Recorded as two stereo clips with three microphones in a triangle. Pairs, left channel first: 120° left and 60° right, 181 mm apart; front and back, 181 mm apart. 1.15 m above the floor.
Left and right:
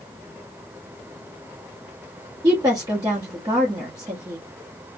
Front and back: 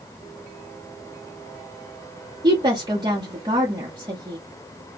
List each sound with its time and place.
2.4 s a woman speaking: 120° right, 1.0 m